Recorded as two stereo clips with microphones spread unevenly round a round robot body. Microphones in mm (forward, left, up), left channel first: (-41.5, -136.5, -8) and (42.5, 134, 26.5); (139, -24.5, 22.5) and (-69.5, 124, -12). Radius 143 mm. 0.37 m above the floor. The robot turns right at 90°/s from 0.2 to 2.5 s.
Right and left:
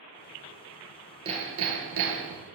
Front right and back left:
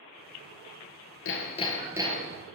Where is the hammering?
Straight ahead, 2.5 m; by 2.4 s 105° left, 2.5 m.